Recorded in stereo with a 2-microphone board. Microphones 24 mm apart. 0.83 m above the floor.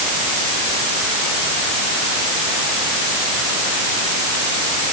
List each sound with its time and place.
Only background noise.